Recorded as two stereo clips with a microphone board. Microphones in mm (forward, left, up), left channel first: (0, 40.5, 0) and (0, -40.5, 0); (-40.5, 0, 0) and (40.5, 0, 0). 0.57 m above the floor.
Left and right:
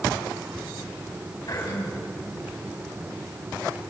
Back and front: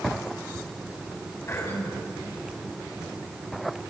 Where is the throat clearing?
125° left, 5 m.